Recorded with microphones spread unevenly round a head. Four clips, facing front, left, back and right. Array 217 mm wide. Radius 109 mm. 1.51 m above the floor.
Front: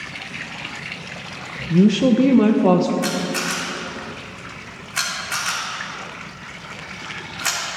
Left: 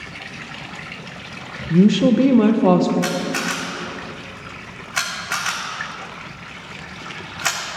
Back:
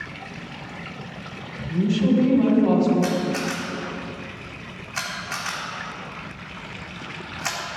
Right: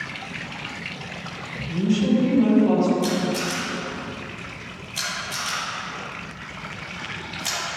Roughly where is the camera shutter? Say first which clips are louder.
Left 1 dB, even; left.